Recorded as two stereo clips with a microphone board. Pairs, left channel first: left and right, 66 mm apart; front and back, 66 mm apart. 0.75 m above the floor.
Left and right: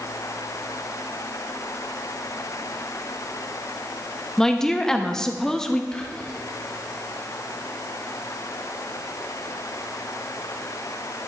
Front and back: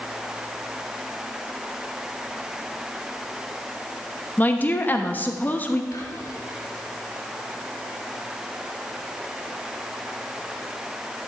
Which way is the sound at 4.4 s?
15° left.